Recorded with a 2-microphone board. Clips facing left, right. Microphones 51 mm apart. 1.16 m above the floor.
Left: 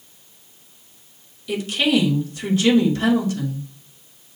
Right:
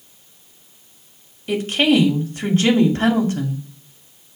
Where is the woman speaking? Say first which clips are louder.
Right 3 dB; 45° right (ahead or behind), 2.5 m.